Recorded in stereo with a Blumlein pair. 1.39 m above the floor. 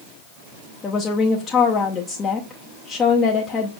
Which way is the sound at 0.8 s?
20° left.